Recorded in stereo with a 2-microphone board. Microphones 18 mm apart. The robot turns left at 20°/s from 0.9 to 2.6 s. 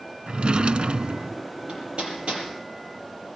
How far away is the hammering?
About 6.5 m.